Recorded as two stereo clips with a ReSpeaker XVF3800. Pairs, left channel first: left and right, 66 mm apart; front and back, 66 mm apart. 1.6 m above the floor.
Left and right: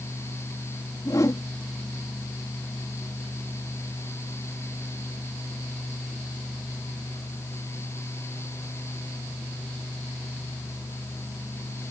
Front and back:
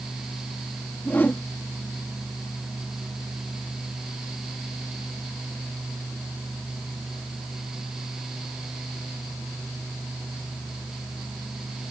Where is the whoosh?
60° left.